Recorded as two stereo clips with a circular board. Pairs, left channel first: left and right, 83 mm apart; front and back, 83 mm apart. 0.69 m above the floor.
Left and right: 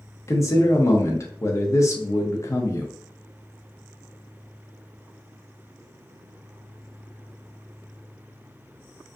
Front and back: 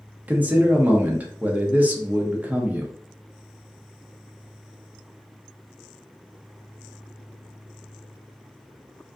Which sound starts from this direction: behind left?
A man speaking, at 0.3 s.